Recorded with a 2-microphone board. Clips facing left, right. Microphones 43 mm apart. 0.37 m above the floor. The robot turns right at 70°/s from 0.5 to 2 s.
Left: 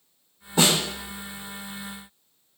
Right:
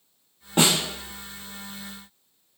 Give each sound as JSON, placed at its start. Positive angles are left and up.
{"t": 0.6, "sound": "a snare drum", "side_deg": -60, "distance_m": 1.7}